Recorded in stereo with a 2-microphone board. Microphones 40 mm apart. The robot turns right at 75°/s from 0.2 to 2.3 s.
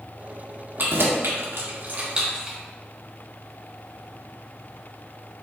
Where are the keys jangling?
50° right (ahead or behind), 1.0 m; by 2.6 s 15° right (ahead or behind), 1.0 m.